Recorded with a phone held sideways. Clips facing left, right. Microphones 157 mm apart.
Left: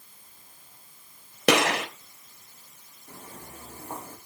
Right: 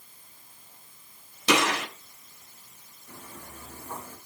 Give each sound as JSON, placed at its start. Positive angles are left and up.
{"t": 1.5, "sound": "a gunshot", "side_deg": 70, "distance_m": 3.5}
{"t": 3.1, "sound": "footsteps", "side_deg": 40, "distance_m": 4.5}